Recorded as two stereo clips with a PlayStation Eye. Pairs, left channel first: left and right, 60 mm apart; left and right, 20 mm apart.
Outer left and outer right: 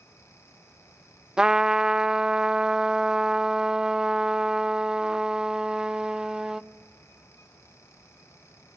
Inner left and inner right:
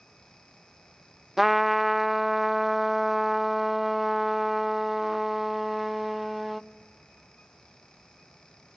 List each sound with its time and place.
1.4 s a trumpet: 10° right (ahead or behind), 0.6 m